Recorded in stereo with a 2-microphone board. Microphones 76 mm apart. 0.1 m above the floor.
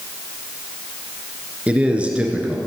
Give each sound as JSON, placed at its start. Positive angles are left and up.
{"t": 1.7, "sound": "a man speaking", "side_deg": -15, "distance_m": 1.3}